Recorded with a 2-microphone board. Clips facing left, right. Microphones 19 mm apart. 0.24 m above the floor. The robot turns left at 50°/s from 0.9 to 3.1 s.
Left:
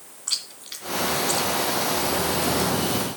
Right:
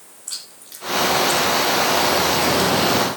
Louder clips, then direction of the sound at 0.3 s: Left 5 dB; 30° left (ahead or behind).